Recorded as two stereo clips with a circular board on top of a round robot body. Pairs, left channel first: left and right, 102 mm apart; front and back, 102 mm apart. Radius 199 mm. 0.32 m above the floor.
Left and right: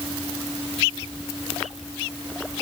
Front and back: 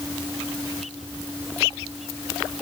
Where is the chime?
No chime in this recording.